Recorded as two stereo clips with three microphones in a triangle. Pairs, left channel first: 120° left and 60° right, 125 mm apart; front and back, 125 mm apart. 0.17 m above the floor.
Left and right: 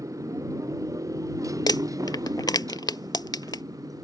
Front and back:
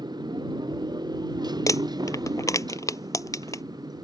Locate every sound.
0.0 s a motorcycle: 125° right; by 4.0 s 120° right
1.7 s crumpling: 60° left